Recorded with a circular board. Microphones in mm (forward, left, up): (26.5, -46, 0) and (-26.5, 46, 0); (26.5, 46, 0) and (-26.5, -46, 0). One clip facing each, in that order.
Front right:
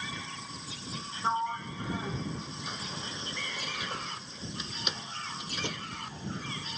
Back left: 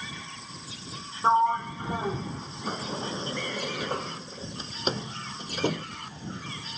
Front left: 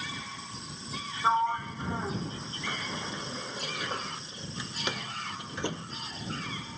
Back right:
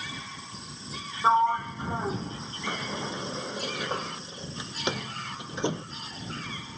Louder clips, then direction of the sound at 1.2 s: Back left 9 dB, back right 4 dB; 170° left.